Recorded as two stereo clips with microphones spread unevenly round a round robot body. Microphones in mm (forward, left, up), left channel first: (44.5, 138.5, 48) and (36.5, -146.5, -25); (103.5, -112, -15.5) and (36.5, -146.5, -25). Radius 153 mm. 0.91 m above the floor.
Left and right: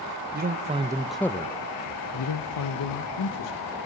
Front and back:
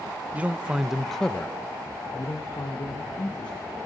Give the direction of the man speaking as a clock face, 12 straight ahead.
3 o'clock.